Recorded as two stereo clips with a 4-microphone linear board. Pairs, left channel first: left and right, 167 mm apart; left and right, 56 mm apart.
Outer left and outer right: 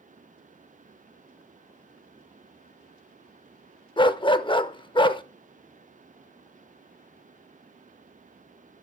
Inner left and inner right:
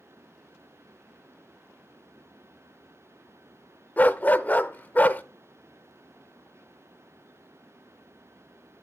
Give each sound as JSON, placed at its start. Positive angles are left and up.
{"t": 4.0, "sound": "a dog barking", "side_deg": 30, "distance_m": 0.5}